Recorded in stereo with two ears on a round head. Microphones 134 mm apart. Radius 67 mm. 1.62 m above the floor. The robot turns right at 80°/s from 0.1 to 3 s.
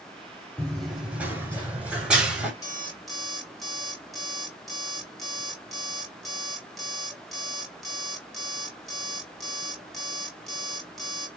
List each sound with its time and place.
0.6 s running footsteps: 5° left (ahead or behind), 1.8 m; by 2.5 s 5° right (ahead or behind), 1.6 m
2.6 s an alarm clock: 150° left, 1.3 m; by 11.3 s straight behind, 1.3 m